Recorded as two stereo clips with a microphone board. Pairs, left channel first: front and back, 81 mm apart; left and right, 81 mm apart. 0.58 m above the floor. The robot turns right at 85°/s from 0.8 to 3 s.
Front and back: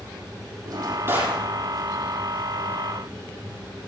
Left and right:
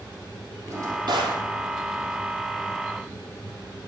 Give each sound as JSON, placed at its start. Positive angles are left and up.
{"t": 0.7, "sound": "a drawer", "azimuth_deg": -145, "distance_m": 4.5}